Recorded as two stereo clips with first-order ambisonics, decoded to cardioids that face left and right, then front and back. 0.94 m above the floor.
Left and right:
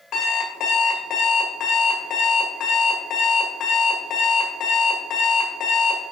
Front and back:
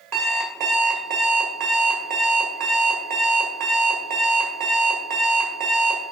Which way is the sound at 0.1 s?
145° left.